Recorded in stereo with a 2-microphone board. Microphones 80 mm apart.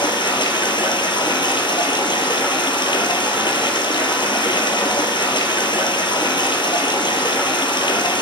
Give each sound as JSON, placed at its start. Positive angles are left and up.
{"t": 0.0, "sound": "running water", "side_deg": 85, "distance_m": 1.2}